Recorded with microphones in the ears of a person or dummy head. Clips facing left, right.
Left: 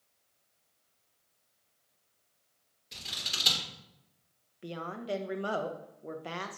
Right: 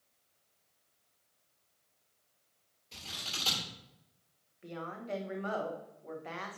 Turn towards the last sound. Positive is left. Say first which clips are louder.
# left 4 dB
turn(degrees=50)  # may be behind; listen again after turning